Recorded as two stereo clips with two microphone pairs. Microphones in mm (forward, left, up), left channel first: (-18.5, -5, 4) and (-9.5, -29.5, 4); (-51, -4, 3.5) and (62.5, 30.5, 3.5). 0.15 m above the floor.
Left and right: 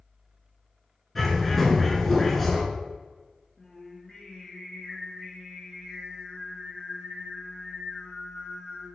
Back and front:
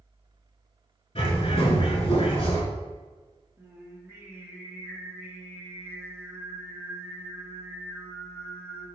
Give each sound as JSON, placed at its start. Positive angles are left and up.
{"t": 1.1, "sound": "a bird", "azimuth_deg": -165, "distance_m": 0.7}
{"t": 3.6, "sound": "singing", "azimuth_deg": 75, "distance_m": 1.2}